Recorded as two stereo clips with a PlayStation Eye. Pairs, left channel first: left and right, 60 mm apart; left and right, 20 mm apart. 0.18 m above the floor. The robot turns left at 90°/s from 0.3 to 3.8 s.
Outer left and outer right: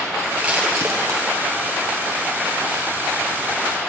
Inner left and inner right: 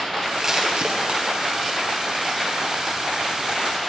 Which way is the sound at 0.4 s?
15° right (ahead or behind).